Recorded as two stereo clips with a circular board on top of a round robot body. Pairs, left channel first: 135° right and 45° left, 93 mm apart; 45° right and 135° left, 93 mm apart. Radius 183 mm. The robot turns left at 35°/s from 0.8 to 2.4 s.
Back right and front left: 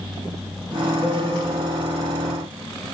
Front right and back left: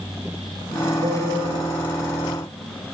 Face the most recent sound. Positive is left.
turn(degrees=75)